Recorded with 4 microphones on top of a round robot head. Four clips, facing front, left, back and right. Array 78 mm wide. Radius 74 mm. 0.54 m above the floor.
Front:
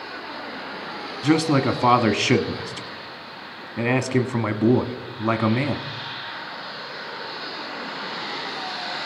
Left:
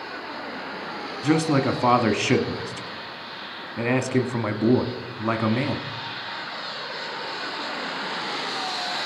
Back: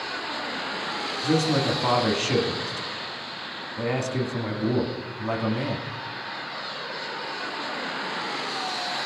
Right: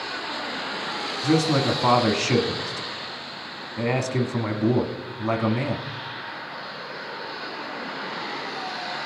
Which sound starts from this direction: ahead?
A man speaking, at 1.2 s.